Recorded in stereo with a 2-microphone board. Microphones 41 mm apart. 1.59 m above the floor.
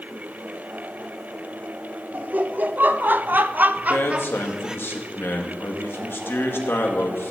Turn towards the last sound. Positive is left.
turn(degrees=75)  # may be behind; listen again after turning